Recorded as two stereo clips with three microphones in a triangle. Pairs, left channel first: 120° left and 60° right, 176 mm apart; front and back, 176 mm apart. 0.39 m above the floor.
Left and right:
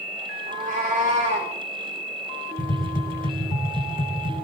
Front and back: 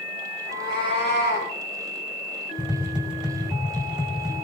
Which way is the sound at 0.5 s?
15° right.